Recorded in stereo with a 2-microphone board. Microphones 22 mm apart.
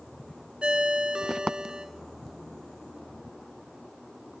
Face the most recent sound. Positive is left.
turn(degrees=-45)  # may be behind; listen again after turning